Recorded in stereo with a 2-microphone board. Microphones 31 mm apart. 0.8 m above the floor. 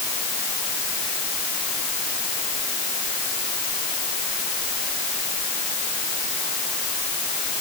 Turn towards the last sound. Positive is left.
No sound to turn to.